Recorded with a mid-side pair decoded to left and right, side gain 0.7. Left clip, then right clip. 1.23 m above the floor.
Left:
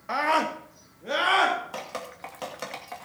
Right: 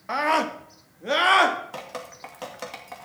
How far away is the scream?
About 1.6 m.